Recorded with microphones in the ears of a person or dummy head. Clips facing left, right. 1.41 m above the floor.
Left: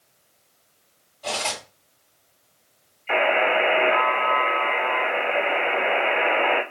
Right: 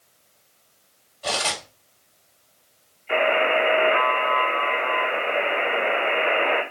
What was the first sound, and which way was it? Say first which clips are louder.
Cutlery clinking: right 1 dB; 10° right (ahead or behind).